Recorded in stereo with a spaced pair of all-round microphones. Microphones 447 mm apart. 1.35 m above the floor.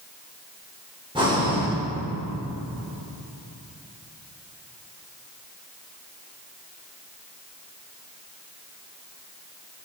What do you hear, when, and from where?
1.1 s breathing: 10° right (ahead or behind), 6 m